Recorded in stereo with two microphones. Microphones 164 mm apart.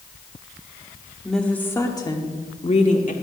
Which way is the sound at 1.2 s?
Centre (ahead or behind).